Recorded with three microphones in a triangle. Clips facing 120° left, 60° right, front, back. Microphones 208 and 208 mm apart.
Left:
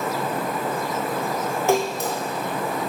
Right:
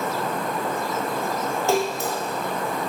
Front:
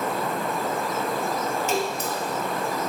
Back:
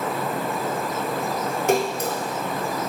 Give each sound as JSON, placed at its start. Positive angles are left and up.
{"t": 1.7, "sound": "a splash", "azimuth_deg": -170, "distance_m": 1.0}